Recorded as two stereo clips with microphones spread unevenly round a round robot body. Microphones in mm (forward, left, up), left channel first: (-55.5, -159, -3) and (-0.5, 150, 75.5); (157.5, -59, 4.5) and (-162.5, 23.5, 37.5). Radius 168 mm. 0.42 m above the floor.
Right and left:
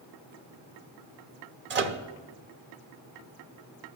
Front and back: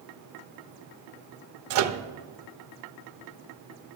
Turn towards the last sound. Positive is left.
turn(degrees=140)